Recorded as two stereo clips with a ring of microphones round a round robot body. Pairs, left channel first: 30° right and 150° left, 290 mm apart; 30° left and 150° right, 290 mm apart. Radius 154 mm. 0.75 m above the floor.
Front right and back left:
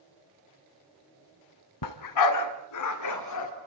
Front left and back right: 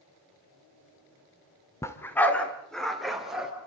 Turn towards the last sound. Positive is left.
turn(degrees=-60)